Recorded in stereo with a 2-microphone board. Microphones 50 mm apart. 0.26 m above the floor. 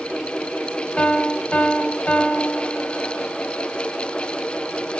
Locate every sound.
1.0 s a piano: 25° left (ahead or behind), 0.5 m